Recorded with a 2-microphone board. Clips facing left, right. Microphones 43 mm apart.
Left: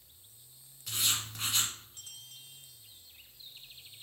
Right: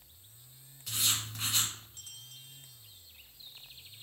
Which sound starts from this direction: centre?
Writing, at 0.9 s.